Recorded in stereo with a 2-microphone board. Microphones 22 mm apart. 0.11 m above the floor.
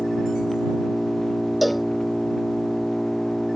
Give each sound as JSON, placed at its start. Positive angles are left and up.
{"t": 0.0, "sound": "an engine running", "side_deg": 15}
{"t": 1.6, "sound": "a cowbell", "side_deg": 0}